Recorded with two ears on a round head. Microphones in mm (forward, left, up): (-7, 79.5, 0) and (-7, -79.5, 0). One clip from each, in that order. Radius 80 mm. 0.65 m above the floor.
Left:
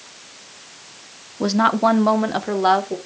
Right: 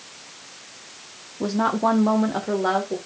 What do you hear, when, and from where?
1.4 s a woman speaking: 50° left (ahead or behind), 0.9 m; by 3.0 s 70° left (ahead or behind), 1.7 m